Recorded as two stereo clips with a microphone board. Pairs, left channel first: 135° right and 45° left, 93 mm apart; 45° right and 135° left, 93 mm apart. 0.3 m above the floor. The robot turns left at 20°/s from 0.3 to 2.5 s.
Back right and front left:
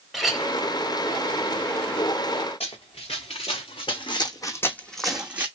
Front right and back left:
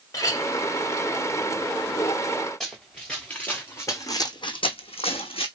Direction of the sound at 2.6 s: 130° right.